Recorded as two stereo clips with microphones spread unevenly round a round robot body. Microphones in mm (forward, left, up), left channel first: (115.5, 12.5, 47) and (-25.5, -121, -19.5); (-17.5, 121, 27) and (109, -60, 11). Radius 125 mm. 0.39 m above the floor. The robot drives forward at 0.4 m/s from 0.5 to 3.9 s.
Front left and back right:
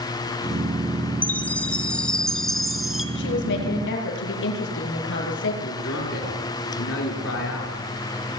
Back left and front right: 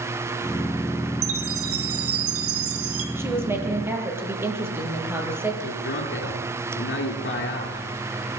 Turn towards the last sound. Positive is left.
turn(degrees=85)